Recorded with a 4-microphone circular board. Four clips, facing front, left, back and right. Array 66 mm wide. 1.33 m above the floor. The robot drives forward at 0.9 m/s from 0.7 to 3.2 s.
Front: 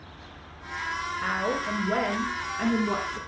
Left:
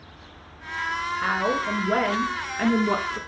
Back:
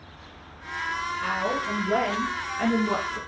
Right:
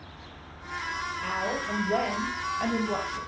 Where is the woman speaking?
70° left, 4 m; by 3.2 s 95° left, 4 m.